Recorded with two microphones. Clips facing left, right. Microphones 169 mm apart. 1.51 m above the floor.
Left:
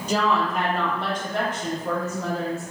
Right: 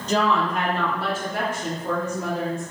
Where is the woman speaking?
10° left (ahead or behind), 1.3 m; by 2.6 s 20° right (ahead or behind), 2.5 m.